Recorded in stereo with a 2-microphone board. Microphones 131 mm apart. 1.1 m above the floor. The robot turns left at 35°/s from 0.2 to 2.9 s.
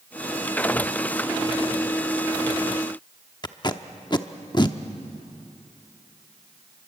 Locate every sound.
3.4 s tape being pulled: 35° left (ahead or behind), 0.8 m